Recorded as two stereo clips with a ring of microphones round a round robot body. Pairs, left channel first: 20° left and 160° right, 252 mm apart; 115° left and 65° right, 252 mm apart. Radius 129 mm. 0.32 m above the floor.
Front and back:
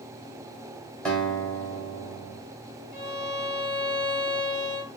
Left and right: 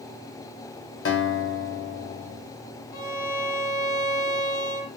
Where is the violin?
70° left, 1.7 m.